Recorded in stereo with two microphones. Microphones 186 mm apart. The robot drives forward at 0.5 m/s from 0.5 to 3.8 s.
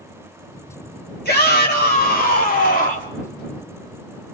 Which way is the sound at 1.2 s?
60° left (ahead or behind).